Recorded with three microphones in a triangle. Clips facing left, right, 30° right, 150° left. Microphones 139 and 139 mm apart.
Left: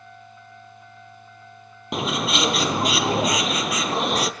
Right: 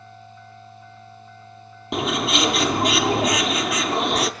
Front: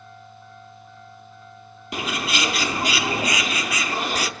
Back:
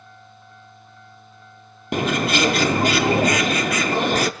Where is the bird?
Straight behind, 0.6 m.